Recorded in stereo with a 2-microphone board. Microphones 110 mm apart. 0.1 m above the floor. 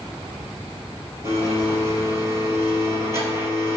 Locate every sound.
1.2 s a blender: 25° right (ahead or behind), 2.5 m